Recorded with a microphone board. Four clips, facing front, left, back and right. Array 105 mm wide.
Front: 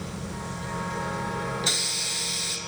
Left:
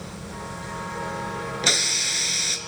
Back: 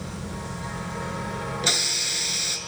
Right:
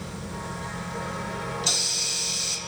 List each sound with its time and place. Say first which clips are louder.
1.6 s a hiss: left 5 dB, back 3 dB; 105° left, 1.3 m